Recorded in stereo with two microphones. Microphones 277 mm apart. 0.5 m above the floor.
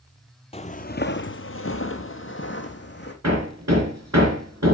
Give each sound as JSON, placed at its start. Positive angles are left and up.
{"t": 0.5, "sound": "footsteps", "side_deg": 25, "distance_m": 0.7}
{"t": 3.2, "sound": "hammering", "side_deg": -75, "distance_m": 3.5}